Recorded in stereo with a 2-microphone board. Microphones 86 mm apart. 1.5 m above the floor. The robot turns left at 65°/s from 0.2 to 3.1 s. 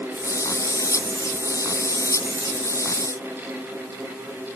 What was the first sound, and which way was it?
Only background noise.